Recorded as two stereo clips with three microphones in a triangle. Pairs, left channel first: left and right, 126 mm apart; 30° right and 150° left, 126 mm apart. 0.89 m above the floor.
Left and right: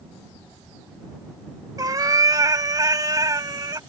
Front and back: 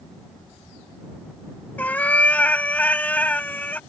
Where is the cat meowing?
95° right.